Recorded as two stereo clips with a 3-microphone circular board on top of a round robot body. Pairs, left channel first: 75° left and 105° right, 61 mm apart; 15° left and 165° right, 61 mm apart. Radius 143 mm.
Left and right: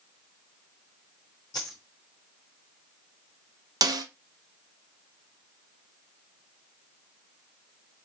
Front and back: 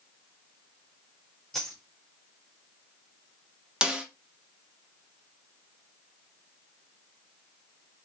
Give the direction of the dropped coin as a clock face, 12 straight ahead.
9 o'clock.